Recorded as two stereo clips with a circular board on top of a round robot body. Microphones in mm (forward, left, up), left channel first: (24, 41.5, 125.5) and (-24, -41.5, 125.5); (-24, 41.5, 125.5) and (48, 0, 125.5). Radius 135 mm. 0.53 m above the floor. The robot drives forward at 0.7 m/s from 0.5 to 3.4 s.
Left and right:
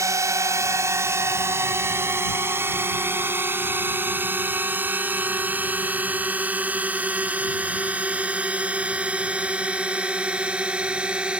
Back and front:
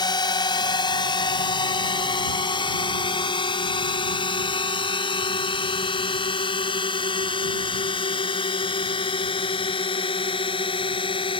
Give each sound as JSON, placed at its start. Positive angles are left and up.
{"t": 0.0, "sound": "a drone", "azimuth_deg": 180}